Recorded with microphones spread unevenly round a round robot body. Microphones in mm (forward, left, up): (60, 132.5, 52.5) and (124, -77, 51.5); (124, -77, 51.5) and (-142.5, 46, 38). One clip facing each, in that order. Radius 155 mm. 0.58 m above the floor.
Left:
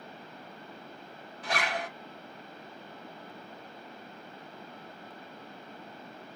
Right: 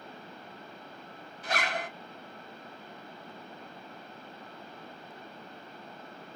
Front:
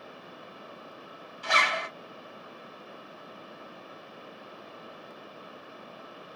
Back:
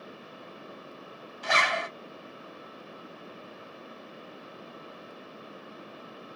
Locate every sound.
1.4 s a zipper: 155° left, 1.2 m